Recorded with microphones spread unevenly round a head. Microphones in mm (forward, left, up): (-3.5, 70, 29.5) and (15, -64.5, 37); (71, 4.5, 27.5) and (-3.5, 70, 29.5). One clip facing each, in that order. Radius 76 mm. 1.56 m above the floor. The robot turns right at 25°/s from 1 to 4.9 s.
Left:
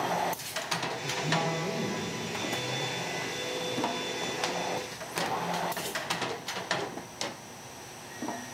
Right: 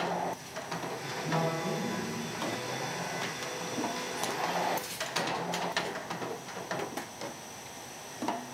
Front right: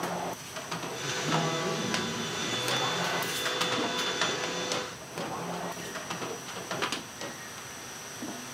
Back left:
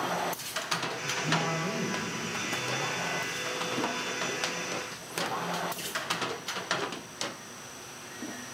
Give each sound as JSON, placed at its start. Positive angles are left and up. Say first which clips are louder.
{"t": 1.0, "sound": "a man speaking", "louder": "even, front right 3 dB", "azimuth_deg": 10, "distance_m": 5.0}